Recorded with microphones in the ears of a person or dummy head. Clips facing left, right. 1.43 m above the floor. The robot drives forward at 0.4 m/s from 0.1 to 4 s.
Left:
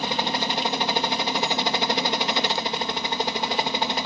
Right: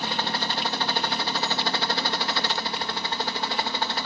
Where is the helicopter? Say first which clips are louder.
Left 3 dB; 15° left (ahead or behind).